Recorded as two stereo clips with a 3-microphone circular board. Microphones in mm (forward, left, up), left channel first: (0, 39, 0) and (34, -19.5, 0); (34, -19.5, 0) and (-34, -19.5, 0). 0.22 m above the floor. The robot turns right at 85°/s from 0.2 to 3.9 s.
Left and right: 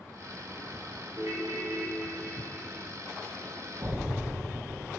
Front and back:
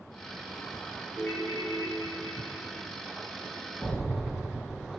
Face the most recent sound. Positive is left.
turn(degrees=-35)